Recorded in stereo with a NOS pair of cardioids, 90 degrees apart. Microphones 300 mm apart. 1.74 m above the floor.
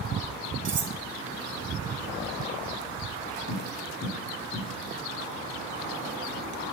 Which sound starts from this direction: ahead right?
Cutlery clinking, at 0.7 s.